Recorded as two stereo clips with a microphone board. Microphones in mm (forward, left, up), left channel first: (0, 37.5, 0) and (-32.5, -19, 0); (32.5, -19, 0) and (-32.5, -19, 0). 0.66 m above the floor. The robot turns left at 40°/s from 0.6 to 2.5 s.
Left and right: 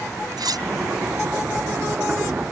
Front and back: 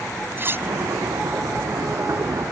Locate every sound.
0.4 s cutlery clinking: 125° right